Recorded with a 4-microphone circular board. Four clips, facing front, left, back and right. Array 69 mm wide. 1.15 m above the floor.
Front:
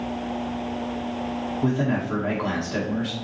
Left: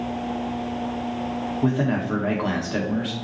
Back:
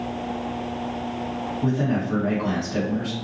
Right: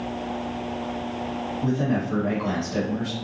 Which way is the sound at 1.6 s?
75° left.